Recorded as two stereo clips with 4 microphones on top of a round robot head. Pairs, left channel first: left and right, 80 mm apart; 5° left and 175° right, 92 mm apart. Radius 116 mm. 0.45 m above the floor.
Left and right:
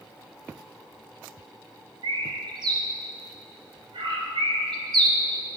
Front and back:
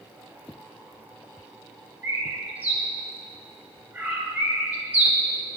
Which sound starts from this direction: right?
A bird, at 2.0 s.